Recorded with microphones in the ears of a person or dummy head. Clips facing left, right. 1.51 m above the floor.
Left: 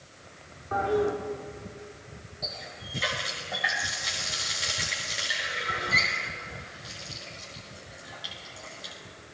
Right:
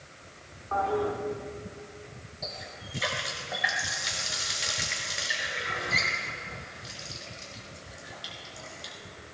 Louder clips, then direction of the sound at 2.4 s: Even; 5° right (ahead or behind).